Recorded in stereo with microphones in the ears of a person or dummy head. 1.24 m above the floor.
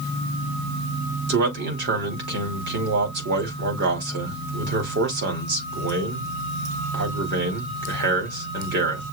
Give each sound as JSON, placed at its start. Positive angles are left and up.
{"t": 1.3, "sound": "a man speaking", "side_deg": -60, "distance_m": 2.5}